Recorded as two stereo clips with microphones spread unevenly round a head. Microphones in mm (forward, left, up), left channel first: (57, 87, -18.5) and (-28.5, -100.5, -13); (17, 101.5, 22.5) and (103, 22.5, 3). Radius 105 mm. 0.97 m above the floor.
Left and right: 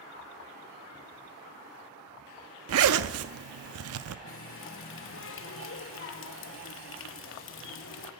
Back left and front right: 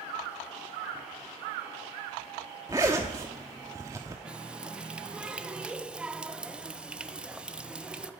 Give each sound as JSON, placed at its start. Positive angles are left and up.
{"t": 2.7, "sound": "a zipper", "azimuth_deg": -120, "distance_m": 0.7}
{"t": 4.2, "sound": "a running tap", "azimuth_deg": 40, "distance_m": 0.8}